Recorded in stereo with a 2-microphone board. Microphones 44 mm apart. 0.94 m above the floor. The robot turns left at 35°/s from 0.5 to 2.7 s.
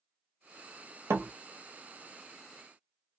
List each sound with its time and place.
1.1 s a door slam: 75° right (ahead or behind), 0.9 m; by 1.3 s 80° right, 0.9 m